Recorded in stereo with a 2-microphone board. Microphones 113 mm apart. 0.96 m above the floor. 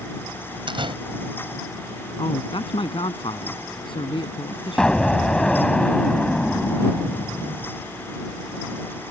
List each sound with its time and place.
0.7 s a door slam: 50° right (ahead or behind)
2.2 s a man speaking: 50° left (ahead or behind)
4.8 s an explosion: 5° left (ahead or behind)